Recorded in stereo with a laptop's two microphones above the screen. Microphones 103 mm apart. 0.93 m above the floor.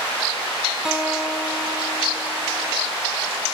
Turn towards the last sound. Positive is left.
turn(degrees=-5)  # may be behind; listen again after turning